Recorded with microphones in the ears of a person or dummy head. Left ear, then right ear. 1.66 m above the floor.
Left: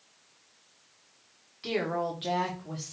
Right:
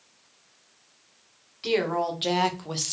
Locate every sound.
1.6 s a woman speaking: 5° right (ahead or behind), 1.1 m; by 2.9 s 50° right (ahead or behind), 0.6 m